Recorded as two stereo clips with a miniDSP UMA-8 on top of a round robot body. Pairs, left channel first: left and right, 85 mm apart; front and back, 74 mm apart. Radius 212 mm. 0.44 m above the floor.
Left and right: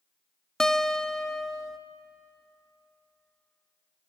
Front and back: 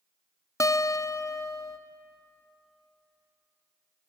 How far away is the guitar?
About 1.1 m.